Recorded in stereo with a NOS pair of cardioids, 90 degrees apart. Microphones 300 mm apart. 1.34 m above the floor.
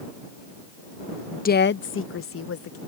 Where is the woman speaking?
25° left; by 2.8 s 50° left.